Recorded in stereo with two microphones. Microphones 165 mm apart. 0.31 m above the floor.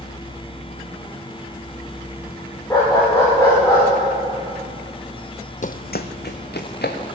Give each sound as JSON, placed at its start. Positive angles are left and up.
{"t": 2.7, "sound": "a dog barking", "side_deg": 20, "distance_m": 9.5}
{"t": 5.6, "sound": "running footsteps", "side_deg": 50, "distance_m": 0.6}